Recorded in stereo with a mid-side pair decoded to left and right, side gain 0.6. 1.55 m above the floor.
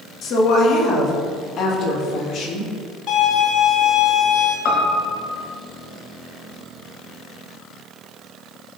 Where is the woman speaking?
55° left, 3.5 m; by 2.7 s 60° left, 5.5 m.